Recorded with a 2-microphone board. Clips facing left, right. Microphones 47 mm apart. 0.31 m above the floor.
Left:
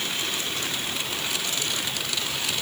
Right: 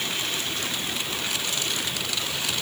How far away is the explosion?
I don't hear an explosion.